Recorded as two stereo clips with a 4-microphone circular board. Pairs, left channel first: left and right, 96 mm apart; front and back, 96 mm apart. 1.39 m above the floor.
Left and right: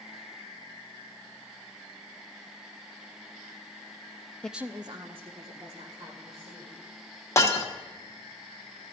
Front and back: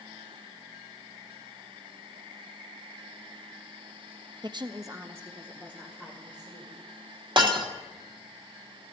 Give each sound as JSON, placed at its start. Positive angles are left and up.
{"t": 4.4, "sound": "a woman speaking", "azimuth_deg": 170, "distance_m": 0.5}
{"t": 7.4, "sound": "breaking glass", "azimuth_deg": 145, "distance_m": 1.2}